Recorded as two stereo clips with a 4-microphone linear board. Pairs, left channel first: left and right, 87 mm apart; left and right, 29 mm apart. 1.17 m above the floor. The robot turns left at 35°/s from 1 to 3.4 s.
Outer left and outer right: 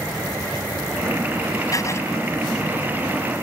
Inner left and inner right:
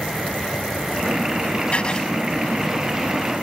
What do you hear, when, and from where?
1.7 s writing: 40° left (ahead or behind); by 2.0 s 30° left (ahead or behind)